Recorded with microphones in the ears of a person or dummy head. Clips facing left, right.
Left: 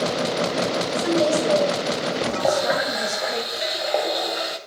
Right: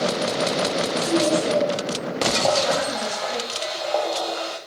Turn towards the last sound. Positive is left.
turn(degrees=25)  # may be behind; listen again after turning